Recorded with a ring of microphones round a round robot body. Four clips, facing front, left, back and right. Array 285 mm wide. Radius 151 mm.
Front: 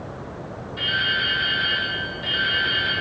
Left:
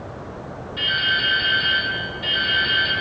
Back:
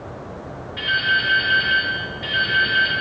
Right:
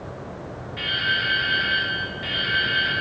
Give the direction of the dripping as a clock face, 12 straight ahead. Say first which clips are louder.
Left 2 dB, back 4 dB; 7 o'clock.